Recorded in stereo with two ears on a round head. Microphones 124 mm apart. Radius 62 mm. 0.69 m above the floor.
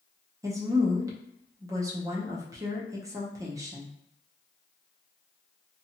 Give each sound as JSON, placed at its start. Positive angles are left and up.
{"t": 0.4, "sound": "a woman speaking", "side_deg": -25, "distance_m": 0.6}